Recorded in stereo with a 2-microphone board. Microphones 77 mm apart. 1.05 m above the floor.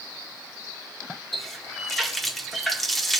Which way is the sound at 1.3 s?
Centre (ahead or behind).